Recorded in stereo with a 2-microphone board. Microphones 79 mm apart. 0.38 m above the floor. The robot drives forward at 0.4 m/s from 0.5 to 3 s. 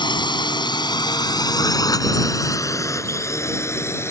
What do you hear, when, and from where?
0.0 s a drone: 70° left (ahead or behind); by 4.1 s 30° left (ahead or behind)